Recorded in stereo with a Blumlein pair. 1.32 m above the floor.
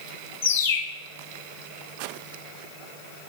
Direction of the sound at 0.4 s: 60° left.